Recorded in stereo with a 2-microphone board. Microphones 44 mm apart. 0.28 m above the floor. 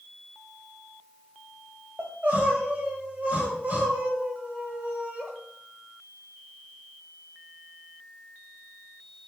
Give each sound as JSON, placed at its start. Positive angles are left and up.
{"t": 2.0, "sound": "crying", "side_deg": -35, "distance_m": 0.6}